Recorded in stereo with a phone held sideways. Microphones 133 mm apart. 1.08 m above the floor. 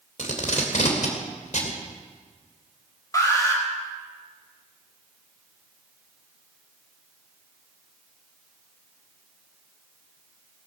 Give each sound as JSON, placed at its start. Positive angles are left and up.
{"t": 0.2, "sound": "tape being pulled", "side_deg": 65, "distance_m": 2.5}
{"t": 3.1, "sound": "an alarm", "side_deg": 25, "distance_m": 4.0}